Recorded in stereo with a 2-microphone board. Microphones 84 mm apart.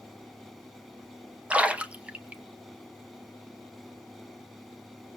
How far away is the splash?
About 1.0 m.